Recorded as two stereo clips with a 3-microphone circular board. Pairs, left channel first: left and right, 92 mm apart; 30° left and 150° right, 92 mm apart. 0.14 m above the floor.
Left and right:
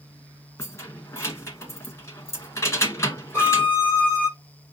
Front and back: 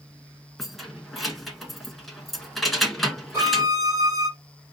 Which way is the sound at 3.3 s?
145° left.